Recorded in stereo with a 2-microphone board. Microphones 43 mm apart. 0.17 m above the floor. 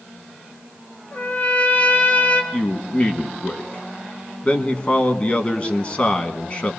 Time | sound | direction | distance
1.1 | a trumpet | 45° left (ahead or behind) | 2.5 m
2.5 | a man speaking | 30° left (ahead or behind) | 1.4 m